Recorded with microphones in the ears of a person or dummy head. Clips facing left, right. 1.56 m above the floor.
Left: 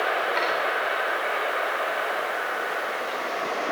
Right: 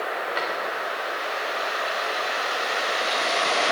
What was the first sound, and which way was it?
A drawer, 10° right (ahead or behind).